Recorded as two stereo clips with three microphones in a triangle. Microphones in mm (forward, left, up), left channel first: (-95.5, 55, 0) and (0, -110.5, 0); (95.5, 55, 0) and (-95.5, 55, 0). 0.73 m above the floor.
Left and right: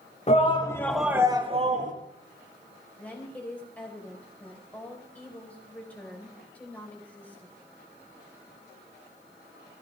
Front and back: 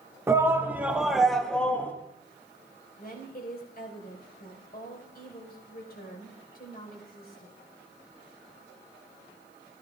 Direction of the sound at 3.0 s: 40° left.